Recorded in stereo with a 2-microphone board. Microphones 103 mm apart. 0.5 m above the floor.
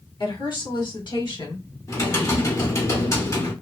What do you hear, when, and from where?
0.2 s a woman speaking: 50° left (ahead or behind), 1.4 m; by 1.7 s 45° left (ahead or behind), 1.6 m
1.9 s typing on a keyboard: 30° left (ahead or behind), 1.3 m